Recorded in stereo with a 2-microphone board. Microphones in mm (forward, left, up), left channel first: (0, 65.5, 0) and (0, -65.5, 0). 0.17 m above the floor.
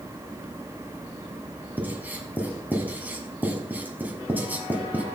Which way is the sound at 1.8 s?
15° right (ahead or behind).